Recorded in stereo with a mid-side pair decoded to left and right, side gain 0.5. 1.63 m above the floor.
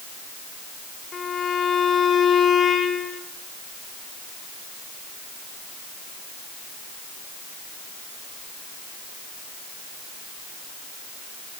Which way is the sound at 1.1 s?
40° left.